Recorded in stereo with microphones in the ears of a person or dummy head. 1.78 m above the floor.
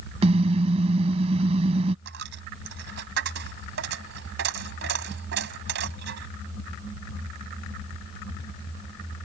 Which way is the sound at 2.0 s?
75° right (ahead or behind).